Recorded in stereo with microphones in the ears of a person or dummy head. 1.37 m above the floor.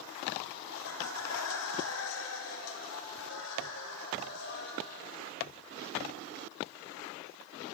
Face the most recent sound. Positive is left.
turn(degrees=60)  # may be behind; listen again after turning